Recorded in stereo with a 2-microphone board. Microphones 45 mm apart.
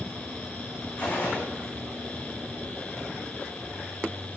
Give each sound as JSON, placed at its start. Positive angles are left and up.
{"t": 1.0, "sound": "a gunshot", "side_deg": 30, "distance_m": 5.0}